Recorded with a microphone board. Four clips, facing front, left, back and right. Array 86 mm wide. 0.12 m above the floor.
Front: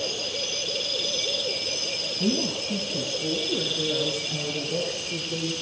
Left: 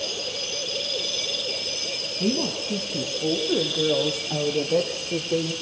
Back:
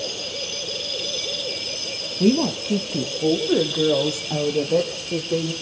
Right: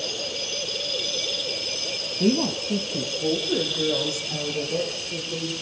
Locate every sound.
2.2 s a woman speaking: 165° right, 4 m; by 5.5 s 140° left, 5.5 m